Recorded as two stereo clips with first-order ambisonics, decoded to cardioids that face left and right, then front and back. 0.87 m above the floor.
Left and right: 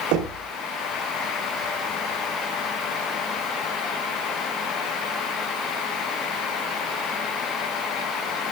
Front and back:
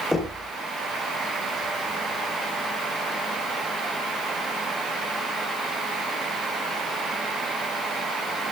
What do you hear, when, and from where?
0.1 s knocking: 85° right, 2.5 m